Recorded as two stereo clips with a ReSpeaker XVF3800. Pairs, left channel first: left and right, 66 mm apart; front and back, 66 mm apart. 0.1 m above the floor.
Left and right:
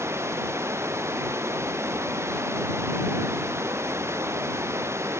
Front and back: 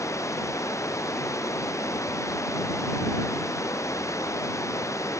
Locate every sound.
0.0 s running water: 40° right